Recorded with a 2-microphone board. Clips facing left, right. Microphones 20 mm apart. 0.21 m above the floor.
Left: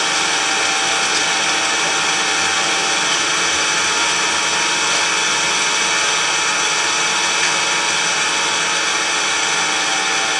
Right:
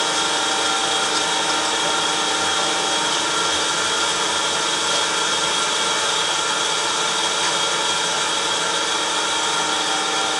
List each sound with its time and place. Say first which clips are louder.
0.0 s an engine running: left 3 dB; 45° left (ahead or behind), 1.1 m